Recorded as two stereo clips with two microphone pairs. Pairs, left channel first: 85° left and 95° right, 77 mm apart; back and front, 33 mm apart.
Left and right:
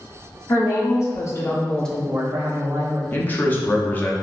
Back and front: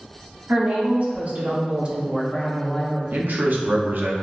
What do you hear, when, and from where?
0.5 s a woman speaking: 45° left, 1.9 m; by 3.0 s 120° right, 1.2 m
3.1 s a man speaking: 15° left, 0.8 m